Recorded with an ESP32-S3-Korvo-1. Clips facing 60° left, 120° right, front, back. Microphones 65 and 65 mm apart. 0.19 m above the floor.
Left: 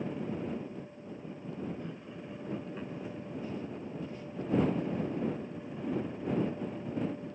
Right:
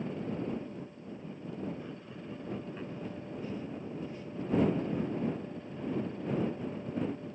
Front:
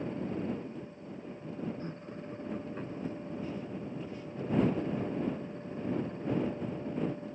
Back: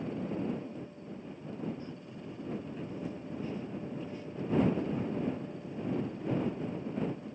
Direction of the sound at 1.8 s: 35° right.